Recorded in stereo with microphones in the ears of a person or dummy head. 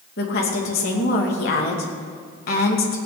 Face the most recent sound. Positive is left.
turn(degrees=45)  # may be behind; listen again after turning